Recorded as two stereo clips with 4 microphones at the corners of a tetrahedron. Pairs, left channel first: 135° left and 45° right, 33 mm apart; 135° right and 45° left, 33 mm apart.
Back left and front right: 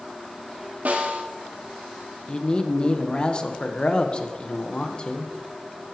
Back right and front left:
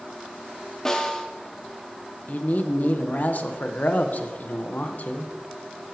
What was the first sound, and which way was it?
A snare drum, 60° right.